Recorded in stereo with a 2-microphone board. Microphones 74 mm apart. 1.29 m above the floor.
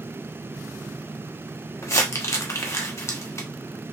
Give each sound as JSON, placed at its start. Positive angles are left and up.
{"t": 1.8, "sound": "crumpling", "side_deg": 40, "distance_m": 0.9}